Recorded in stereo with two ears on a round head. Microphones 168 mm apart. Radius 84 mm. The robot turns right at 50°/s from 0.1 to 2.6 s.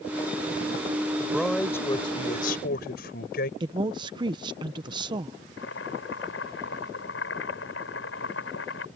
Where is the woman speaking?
25° right (ahead or behind).